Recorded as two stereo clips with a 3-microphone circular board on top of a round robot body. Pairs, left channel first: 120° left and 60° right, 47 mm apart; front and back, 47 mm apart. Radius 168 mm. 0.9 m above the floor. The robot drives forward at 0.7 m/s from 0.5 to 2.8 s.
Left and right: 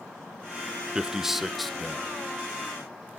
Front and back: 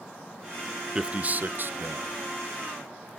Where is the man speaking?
120° right, 0.8 m; by 2.2 s 165° right, 1.3 m.